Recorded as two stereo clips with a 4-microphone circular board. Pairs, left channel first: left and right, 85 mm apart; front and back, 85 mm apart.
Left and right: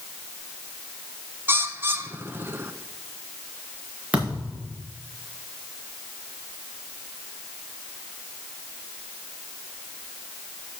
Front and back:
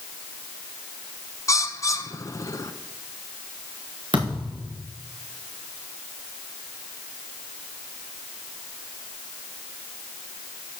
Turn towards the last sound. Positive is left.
turn(degrees=-165)